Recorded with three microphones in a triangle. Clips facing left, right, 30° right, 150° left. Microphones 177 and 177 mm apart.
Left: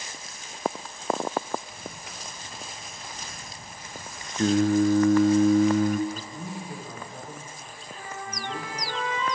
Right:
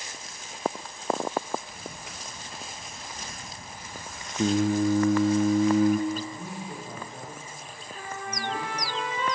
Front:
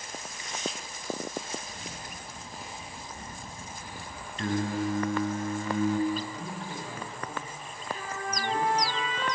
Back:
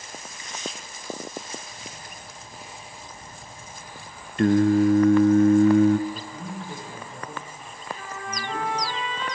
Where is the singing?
175° right, 0.6 m.